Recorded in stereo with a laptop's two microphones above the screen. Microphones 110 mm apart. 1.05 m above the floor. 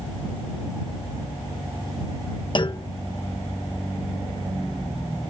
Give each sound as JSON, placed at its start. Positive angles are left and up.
{"t": 2.5, "sound": "a clunk", "side_deg": 45}